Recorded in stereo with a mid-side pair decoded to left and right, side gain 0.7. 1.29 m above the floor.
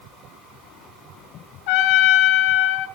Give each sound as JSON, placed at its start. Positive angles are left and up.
{"t": 1.7, "sound": "a trumpet", "azimuth_deg": 70, "distance_m": 3.5}